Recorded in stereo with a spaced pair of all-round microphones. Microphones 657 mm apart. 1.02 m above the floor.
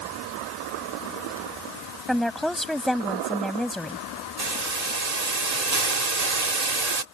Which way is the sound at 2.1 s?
Centre (ahead or behind).